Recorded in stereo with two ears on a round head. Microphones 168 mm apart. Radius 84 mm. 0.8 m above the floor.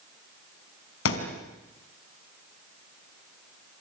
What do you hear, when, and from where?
1.1 s a thud: 85° left, 4 m